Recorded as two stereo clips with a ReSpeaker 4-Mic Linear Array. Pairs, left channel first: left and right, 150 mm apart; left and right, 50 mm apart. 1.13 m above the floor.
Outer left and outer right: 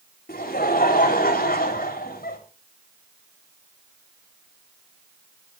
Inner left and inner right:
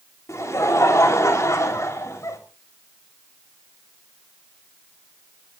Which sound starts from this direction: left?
Laughter, at 0.3 s.